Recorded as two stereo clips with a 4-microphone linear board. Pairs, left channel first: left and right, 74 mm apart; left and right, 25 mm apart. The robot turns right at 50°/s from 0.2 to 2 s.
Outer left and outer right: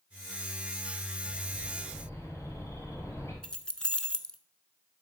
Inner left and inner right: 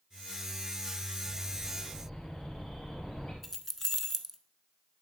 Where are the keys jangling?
10° left (ahead or behind), 0.7 m.